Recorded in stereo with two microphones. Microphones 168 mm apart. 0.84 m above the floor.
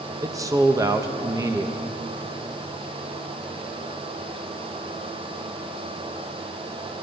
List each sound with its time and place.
0.2 s a man speaking: 20° right (ahead or behind), 0.6 m